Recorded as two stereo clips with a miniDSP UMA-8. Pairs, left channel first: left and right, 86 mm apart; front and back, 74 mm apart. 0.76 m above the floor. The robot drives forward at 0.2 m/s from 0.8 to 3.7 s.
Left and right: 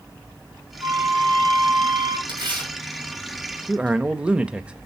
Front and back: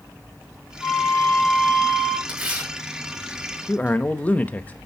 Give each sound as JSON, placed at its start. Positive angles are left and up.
{"t": 0.8, "sound": "a flute", "azimuth_deg": -70, "distance_m": 2.0}
{"t": 2.3, "sound": "tearing paper", "azimuth_deg": -105, "distance_m": 5.5}
{"t": 3.7, "sound": "a man speaking", "azimuth_deg": -30, "distance_m": 0.6}